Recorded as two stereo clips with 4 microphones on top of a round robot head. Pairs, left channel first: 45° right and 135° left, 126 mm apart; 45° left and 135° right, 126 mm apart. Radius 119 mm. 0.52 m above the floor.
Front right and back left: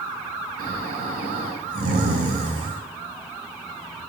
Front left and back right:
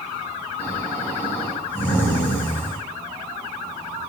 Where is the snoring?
120° left, 0.8 m.